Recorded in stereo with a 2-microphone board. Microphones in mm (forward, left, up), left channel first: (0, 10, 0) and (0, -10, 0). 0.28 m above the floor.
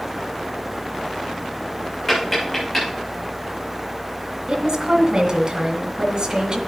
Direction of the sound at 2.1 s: 15° left (ahead or behind).